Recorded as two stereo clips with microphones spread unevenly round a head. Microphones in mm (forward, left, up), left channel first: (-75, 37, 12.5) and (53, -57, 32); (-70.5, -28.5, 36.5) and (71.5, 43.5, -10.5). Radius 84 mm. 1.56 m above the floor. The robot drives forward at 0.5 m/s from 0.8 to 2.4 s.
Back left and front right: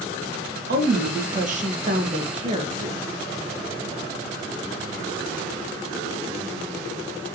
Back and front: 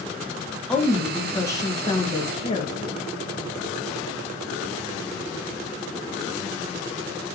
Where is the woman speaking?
70° right, 2 m; by 3.1 s 90° right, 1.9 m.